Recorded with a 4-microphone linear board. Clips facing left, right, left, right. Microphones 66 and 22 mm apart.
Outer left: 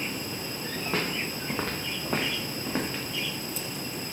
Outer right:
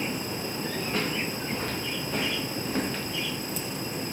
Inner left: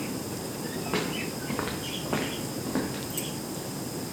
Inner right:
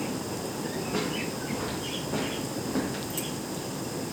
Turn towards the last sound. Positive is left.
turn(degrees=5)  # may be behind; listen again after turning